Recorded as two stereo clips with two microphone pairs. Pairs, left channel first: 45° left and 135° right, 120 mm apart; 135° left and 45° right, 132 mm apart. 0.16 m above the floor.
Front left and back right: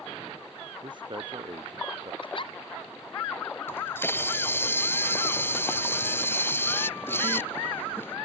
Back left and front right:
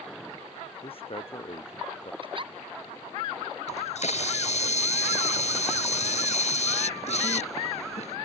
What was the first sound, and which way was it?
A man speaking, straight behind.